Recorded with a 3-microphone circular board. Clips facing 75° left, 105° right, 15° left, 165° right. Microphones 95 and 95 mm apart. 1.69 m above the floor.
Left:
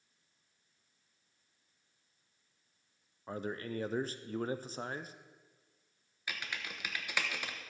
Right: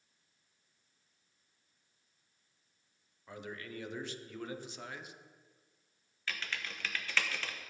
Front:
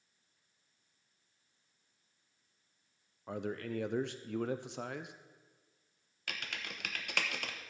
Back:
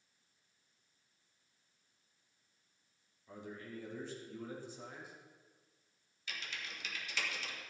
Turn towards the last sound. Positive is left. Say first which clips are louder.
# right 1 dB, front 3 dB
turn(degrees=0)